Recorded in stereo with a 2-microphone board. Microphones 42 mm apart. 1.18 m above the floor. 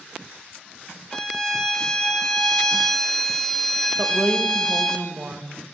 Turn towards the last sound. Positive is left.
turn(degrees=-45)  # may be behind; listen again after turning